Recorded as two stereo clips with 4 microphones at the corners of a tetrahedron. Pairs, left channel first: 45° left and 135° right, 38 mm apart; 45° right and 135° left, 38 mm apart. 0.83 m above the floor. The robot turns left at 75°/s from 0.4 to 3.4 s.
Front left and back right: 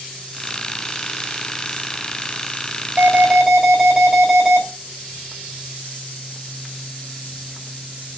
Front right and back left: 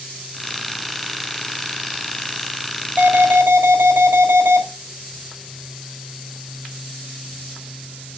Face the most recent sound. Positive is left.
turn(degrees=155)